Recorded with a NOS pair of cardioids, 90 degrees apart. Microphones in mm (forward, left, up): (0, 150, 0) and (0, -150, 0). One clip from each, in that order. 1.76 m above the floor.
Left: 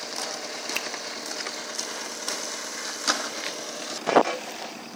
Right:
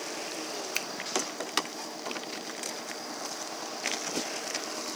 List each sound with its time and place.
0.8 s a finger snap: straight ahead, 1.0 m